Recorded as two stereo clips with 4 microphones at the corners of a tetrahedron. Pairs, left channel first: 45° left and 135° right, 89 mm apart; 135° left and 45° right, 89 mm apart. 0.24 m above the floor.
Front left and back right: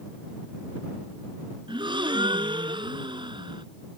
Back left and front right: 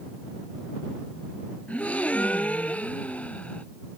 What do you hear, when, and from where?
1.7 s a gasp: 150° right